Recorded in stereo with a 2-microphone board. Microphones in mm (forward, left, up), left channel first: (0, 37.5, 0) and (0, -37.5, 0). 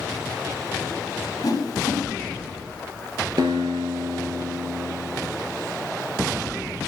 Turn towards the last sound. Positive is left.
turn(degrees=-65)  # may be behind; listen again after turning